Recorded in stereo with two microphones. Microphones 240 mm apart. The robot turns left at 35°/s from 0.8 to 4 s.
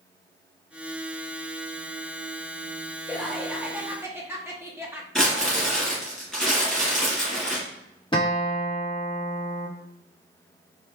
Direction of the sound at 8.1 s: 20° left (ahead or behind).